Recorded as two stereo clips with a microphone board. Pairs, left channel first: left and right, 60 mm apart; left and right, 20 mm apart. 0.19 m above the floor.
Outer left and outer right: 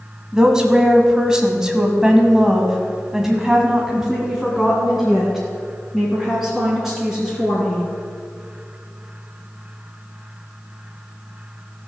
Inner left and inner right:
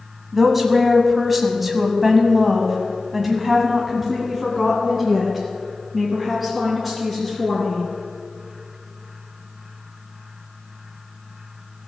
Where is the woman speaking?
10° right (ahead or behind), 1.7 m; by 7.8 s centre (ahead or behind), 3.5 m.